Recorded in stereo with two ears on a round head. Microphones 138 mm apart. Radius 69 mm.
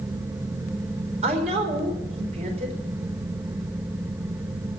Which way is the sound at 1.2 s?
45° right (ahead or behind).